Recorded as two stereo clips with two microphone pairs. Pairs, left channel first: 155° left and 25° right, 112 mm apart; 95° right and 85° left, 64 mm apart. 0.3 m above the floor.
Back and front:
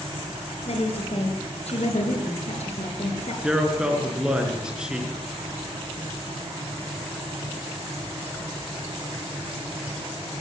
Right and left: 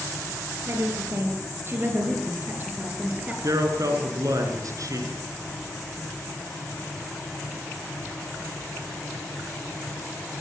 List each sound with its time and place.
0.7 s a woman speaking: 130° left, 7 m; by 3.3 s 150° left, 5.5 m
3.4 s a man speaking: 60° left, 5 m